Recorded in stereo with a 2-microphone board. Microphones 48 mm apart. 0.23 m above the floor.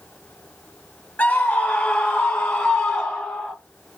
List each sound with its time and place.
1.2 s a scream: 30° left (ahead or behind), 1.3 m; by 3.5 s 5° left (ahead or behind), 1.8 m